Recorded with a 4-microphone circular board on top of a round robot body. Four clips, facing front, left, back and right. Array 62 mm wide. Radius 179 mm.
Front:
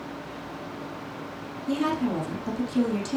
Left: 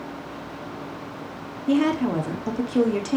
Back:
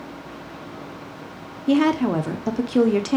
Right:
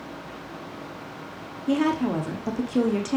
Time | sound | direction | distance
1.7 | a woman speaking | straight behind | 1.5 m